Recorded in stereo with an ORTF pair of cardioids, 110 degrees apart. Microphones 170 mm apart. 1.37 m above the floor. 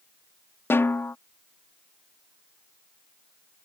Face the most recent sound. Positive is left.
turn(degrees=15)